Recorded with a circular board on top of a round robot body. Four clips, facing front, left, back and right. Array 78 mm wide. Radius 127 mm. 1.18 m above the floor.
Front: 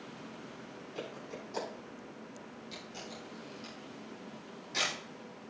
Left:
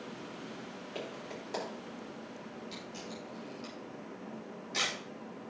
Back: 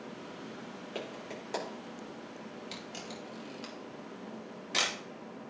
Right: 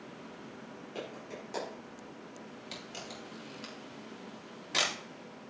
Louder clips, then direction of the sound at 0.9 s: Even, back 1 dB; 170° left.